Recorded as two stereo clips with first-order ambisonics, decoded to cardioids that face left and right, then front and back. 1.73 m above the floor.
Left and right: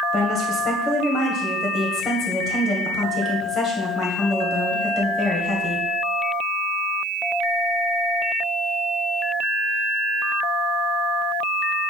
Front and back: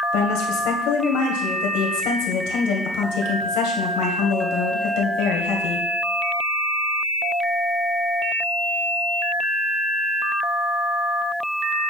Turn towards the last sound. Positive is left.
turn(degrees=20)